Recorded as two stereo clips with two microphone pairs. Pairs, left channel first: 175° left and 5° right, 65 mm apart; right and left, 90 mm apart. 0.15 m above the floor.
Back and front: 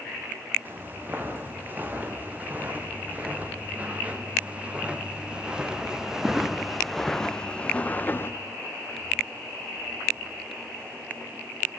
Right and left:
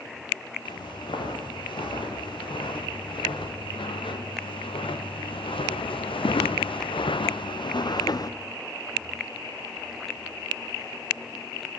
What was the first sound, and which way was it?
Footsteps, 65° right.